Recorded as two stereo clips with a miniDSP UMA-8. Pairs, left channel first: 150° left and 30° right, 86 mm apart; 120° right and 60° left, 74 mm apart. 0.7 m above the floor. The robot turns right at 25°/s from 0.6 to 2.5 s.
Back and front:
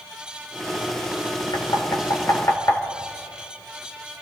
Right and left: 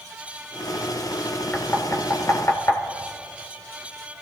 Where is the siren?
I don't hear a siren.